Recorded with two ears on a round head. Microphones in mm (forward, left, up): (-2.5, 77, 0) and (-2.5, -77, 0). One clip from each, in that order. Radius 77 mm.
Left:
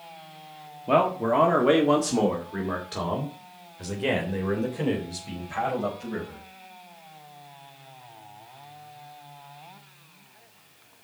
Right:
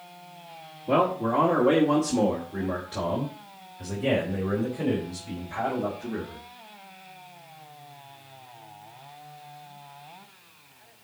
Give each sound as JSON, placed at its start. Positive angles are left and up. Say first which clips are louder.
{"t": 0.9, "sound": "a man speaking", "louder": "left 2 dB", "side_deg": 35, "distance_m": 1.6}